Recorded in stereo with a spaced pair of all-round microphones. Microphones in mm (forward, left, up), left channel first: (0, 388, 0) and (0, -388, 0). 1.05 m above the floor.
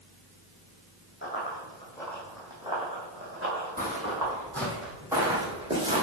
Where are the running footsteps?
15° left (ahead or behind), 3 m; by 4.3 s 25° right (ahead or behind), 3.5 m.